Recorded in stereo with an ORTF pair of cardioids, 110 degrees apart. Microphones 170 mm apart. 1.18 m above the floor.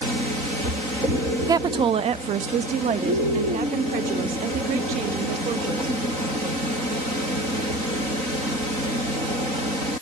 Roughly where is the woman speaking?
Ahead.